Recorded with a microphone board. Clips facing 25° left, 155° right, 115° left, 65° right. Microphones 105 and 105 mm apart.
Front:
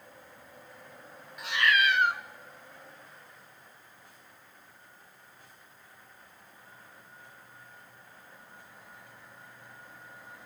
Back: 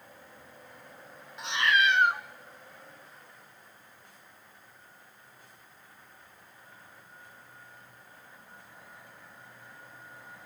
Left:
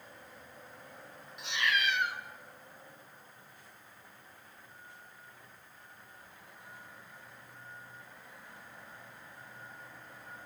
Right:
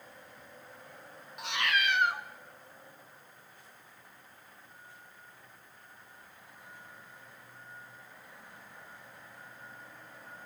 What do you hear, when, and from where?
1.4 s a cat meowing: 95° right, 0.8 m